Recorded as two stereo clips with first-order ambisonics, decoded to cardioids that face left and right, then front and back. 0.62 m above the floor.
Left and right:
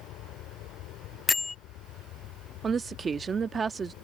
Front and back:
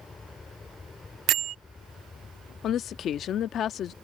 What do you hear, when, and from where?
0.0 s an aircraft: 75° left
1.3 s a bell: 160° left
2.6 s a woman speaking: 30° right